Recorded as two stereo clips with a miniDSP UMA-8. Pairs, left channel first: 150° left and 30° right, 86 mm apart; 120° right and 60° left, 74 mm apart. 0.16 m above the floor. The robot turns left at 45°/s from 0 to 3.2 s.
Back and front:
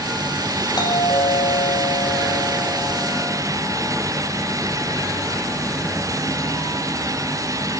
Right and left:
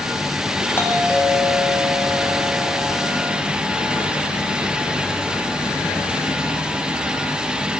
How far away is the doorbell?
About 8 m.